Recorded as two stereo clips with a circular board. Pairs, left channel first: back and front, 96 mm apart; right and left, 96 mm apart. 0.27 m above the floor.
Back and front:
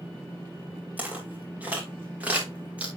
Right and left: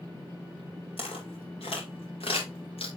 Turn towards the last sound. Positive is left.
turn(degrees=-75)